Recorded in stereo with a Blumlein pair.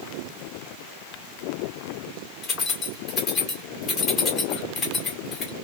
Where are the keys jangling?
20° left, 1.7 m.